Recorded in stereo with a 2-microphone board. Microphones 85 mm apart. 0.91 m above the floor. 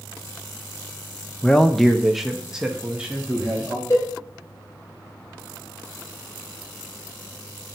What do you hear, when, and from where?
1.4 s a man speaking: 10° left (ahead or behind), 0.6 m; by 3.8 s 15° right (ahead or behind), 1.6 m
3.9 s a cowbell: 35° left (ahead or behind), 3.5 m